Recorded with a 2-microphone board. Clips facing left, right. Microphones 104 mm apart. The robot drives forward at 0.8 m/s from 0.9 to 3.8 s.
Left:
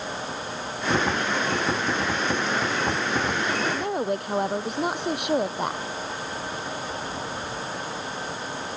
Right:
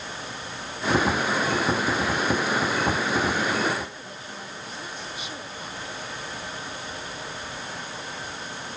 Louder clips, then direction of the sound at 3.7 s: Left 8 dB; 65° left (ahead or behind).